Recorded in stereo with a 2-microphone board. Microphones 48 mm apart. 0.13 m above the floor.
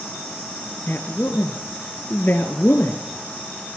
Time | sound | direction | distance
0.9 | a woman speaking | 45° left (ahead or behind) | 2.5 m